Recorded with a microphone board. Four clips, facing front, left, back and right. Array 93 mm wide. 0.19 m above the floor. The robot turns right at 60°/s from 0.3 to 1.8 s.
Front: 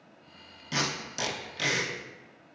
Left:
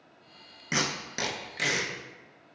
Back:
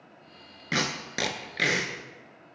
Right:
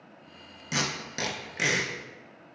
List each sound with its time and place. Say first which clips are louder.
0.7 s tape being pulled: left 1 dB, back 3 dB; 150° left, 0.5 m; by 1.9 s 145° right, 0.5 m